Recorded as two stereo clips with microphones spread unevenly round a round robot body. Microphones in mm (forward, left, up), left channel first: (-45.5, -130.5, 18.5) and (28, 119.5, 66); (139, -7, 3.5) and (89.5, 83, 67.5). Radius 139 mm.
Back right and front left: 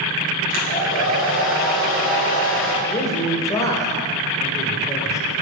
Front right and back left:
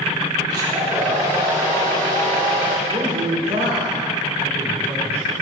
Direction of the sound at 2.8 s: Straight behind.